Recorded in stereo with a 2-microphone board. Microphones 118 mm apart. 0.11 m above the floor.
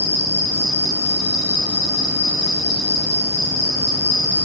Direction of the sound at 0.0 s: 20° right (ahead or behind).